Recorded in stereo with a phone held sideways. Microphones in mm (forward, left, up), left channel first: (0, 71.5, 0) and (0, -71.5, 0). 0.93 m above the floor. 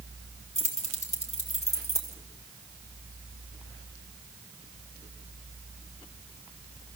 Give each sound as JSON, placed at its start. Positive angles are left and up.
{"t": 0.6, "sound": "keys jangling", "side_deg": 60, "distance_m": 2.5}